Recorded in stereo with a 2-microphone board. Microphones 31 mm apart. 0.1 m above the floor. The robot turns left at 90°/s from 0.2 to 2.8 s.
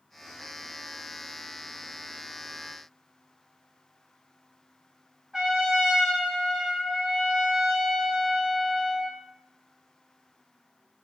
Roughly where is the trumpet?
Right.